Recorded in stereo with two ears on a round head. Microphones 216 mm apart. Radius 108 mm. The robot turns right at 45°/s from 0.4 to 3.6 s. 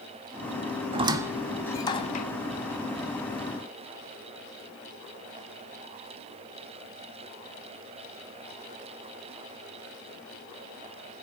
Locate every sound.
0.9 s a squeak: 25° right (ahead or behind), 0.7 m; by 2.2 s 35° left (ahead or behind), 0.7 m